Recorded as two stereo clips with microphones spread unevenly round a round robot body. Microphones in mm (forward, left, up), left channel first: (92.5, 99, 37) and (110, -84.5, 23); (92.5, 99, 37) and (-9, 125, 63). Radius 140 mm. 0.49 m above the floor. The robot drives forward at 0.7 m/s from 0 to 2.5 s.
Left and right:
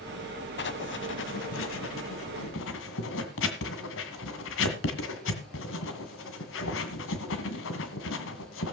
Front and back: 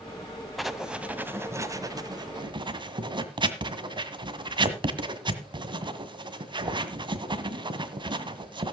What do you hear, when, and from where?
0.6 s writing: 75° left, 1.6 m; by 8.7 s 120° left, 1.8 m